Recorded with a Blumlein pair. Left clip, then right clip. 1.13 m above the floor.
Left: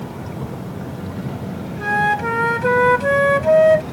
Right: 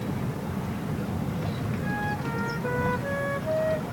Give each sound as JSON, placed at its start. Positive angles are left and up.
{"t": 1.8, "sound": "a flute", "azimuth_deg": 55}